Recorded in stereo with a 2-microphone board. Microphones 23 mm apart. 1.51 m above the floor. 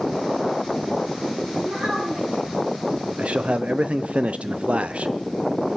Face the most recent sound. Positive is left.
turn(degrees=-60)  # may be behind; listen again after turning